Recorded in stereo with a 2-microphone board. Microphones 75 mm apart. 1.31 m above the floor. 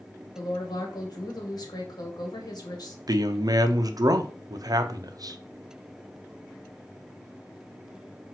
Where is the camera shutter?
No camera shutter in this recording.